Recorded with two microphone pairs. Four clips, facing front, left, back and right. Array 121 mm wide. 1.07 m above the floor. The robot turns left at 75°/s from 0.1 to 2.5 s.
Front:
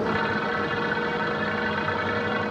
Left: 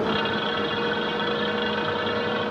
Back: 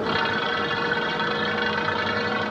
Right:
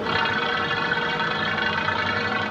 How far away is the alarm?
I don't hear an alarm.